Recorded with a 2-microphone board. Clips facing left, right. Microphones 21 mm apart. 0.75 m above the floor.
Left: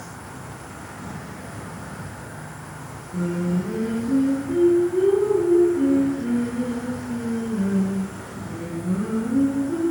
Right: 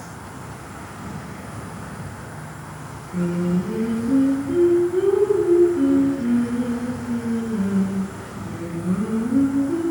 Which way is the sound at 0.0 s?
30° right (ahead or behind).